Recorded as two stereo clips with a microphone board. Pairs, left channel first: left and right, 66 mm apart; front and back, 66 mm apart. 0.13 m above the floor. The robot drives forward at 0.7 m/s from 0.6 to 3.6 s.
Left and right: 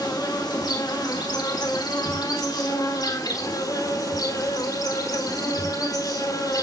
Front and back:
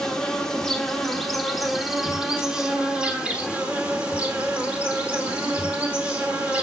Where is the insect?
80° left, 4 m; by 6.6 s 110° left, 4 m.